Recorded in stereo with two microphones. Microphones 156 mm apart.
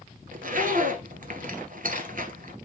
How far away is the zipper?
About 1.4 m.